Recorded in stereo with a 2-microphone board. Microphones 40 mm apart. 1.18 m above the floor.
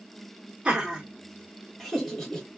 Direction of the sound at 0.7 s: 25° right (ahead or behind).